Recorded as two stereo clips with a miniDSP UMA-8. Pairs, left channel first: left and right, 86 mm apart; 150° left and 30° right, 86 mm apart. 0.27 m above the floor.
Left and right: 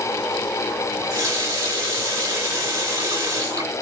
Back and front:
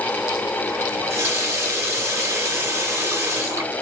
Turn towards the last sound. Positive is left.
turn(degrees=-60)